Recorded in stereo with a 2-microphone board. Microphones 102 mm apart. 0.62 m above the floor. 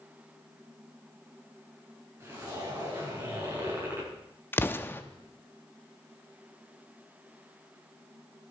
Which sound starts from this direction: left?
An explosion, at 4.5 s.